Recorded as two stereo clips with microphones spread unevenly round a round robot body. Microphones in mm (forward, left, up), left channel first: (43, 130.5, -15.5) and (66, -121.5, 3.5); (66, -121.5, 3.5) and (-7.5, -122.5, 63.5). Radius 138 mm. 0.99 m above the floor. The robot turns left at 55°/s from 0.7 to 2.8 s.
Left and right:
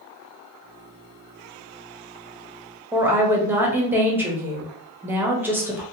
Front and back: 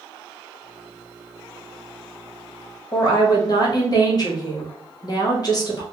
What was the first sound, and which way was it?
A woman speaking, straight ahead.